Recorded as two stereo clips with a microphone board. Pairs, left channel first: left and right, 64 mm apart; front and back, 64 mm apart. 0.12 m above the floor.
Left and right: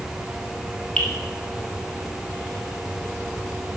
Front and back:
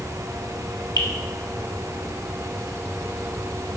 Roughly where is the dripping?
Ahead.